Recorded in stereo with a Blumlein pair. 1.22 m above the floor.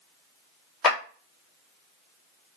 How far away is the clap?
About 1.2 m.